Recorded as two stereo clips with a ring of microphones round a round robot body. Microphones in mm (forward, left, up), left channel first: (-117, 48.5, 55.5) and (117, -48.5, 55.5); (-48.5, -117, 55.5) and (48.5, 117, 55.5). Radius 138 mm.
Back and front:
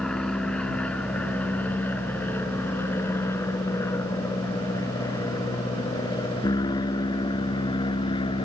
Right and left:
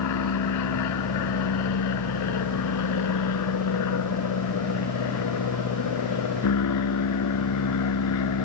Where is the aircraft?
115° right; by 8.4 s 130° right.